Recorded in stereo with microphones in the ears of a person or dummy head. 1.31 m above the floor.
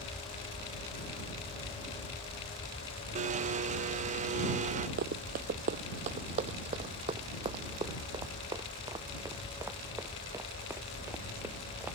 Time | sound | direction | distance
3.1 | a blender | 35° right (ahead or behind) | ?
5.0 | running footsteps | 50° right (ahead or behind) | ?